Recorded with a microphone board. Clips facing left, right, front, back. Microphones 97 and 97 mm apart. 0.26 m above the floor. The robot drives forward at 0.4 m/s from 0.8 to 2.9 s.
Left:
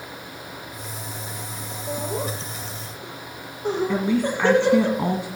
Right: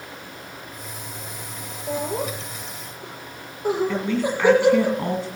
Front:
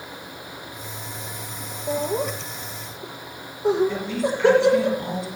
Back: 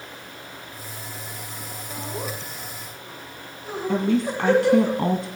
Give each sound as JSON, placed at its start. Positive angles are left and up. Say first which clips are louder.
{"t": 1.9, "sound": "laughter", "louder": "right 2 dB, front 9 dB", "azimuth_deg": -10, "distance_m": 8.5}
{"t": 3.9, "sound": "a woman speaking", "louder": "left 1 dB, back 3 dB", "azimuth_deg": 165, "distance_m": 1.8}